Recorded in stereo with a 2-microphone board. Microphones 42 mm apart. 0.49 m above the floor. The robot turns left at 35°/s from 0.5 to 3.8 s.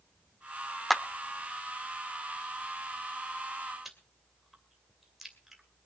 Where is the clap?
Centre (ahead or behind), 0.8 m; by 1.0 s 5° left (ahead or behind), 0.8 m.